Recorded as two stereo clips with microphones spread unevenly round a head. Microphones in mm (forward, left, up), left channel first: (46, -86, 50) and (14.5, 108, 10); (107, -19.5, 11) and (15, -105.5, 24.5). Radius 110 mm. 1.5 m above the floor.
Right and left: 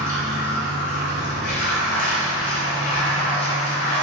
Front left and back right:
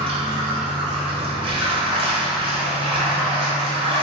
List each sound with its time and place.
0.0 s running water: 90° right, 0.7 m